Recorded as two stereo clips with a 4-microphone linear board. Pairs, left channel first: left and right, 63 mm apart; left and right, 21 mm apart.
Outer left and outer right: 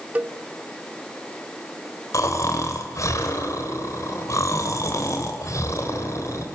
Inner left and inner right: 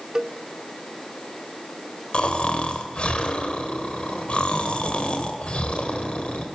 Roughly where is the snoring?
Left.